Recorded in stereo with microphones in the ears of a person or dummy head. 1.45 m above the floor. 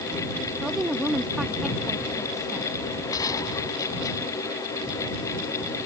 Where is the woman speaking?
5° right (ahead or behind).